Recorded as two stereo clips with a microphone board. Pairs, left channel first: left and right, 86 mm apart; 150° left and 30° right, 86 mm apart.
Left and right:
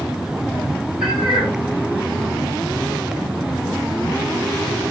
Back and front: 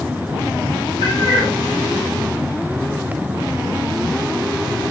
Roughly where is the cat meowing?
Ahead.